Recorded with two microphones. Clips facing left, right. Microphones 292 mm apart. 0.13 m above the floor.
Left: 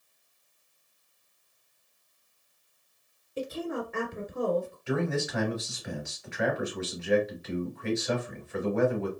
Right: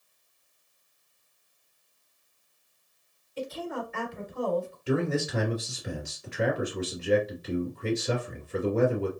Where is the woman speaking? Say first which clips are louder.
Left 2 dB; 60° left (ahead or behind), 2.0 m.